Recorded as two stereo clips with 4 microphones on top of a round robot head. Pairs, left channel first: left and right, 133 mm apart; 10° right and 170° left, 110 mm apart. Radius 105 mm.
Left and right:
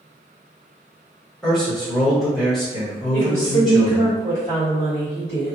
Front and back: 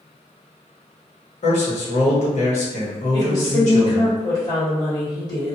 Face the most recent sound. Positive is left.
turn(degrees=35)